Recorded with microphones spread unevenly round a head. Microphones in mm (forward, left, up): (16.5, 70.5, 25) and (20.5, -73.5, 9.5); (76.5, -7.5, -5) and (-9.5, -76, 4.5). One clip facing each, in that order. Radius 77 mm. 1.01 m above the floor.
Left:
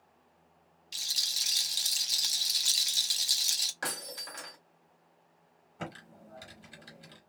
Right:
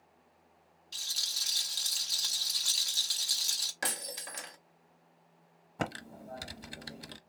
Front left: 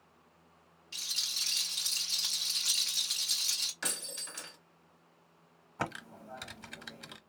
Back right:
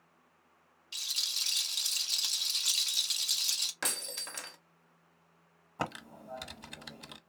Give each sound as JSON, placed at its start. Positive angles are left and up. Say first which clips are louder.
{"t": 0.9, "sound": "a rattle", "louder": "left 2 dB, even", "azimuth_deg": 155, "distance_m": 0.5}
{"t": 3.8, "sound": "breaking glass", "louder": "even, back right 2 dB", "azimuth_deg": -160, "distance_m": 0.9}
{"t": 5.8, "sound": "typing on a keyboard", "louder": "right 6 dB, even", "azimuth_deg": -70, "distance_m": 0.7}